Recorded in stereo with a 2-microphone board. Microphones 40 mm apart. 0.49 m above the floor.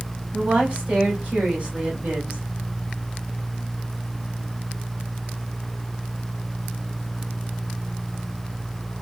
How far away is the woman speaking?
About 2.5 m.